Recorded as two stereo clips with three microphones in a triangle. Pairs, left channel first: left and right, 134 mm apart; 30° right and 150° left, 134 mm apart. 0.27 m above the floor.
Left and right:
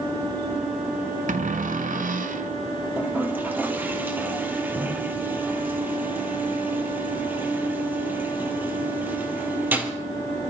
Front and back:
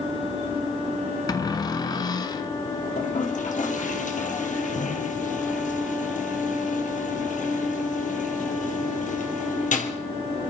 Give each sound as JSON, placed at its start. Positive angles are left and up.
{"t": 1.3, "sound": "a cupboard door", "azimuth_deg": -90, "distance_m": 0.9}
{"t": 3.0, "sound": "a toilet flushing", "azimuth_deg": -15, "distance_m": 2.0}